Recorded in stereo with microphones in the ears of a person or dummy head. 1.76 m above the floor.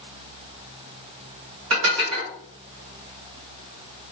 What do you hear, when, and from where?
1.7 s dishes clattering: 60° right (ahead or behind), 1.7 m